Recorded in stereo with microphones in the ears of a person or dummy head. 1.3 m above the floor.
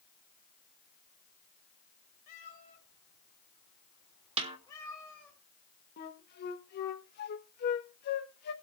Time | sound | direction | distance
2.3 | a cat meowing | 45° left (ahead or behind) | 4 m
4.4 | a snare drum | 35° right (ahead or behind) | 1.3 m
6.0 | a flute | 50° left (ahead or behind) | 1.1 m